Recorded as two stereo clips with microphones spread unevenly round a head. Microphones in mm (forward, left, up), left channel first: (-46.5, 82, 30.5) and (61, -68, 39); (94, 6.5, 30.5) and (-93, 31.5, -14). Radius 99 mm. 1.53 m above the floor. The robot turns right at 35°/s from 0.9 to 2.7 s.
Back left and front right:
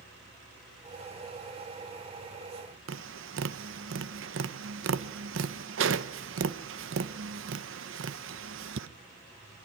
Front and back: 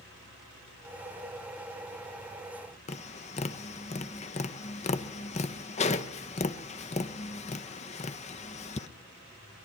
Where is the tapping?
50° right, 0.9 m.